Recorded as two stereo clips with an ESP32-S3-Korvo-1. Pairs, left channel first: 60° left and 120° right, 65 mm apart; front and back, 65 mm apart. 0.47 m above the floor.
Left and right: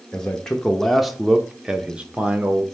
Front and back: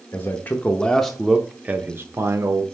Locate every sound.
0.1 s a man speaking: 10° right, 0.8 m; by 2.6 s straight behind, 1.0 m